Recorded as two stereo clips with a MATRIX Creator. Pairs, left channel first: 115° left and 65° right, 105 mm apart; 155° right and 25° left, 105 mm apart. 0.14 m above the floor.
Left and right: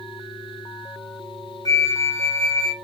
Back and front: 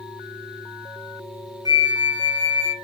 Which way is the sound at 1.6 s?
65° left.